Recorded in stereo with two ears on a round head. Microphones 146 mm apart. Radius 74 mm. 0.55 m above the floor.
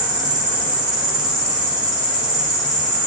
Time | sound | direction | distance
0.0 | an insect | 25° left (ahead or behind) | 1.4 m